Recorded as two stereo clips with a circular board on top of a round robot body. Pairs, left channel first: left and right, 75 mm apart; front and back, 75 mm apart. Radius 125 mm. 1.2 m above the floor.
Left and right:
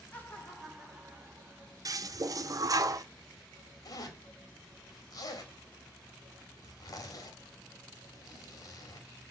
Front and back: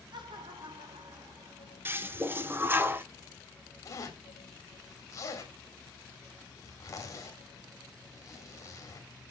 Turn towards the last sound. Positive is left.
turn(degrees=50)